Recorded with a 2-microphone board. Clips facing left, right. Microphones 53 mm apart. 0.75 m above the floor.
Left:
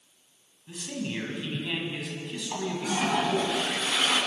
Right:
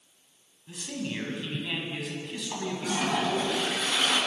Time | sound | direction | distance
0.7 | a man speaking | 5° left (ahead or behind) | 6 m
2.5 | a toilet flushing | 5° left (ahead or behind) | 6.5 m